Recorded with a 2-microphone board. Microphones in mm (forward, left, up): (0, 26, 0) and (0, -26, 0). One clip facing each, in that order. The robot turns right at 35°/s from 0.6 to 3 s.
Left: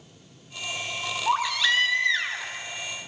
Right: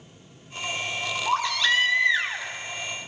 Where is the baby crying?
165° left, 1.5 m; by 3.1 s 135° right, 1.5 m.